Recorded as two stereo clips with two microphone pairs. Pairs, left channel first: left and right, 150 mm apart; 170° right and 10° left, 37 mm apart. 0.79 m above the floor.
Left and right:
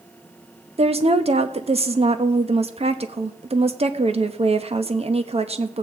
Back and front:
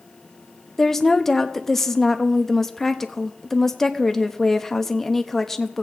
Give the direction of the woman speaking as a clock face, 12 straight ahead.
3 o'clock.